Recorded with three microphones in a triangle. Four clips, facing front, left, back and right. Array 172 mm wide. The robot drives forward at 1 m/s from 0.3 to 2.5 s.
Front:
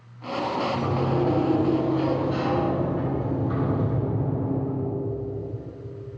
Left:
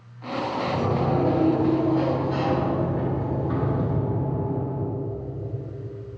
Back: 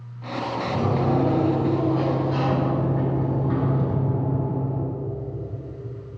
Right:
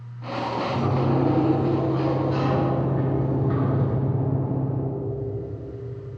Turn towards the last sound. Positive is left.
turn(degrees=150)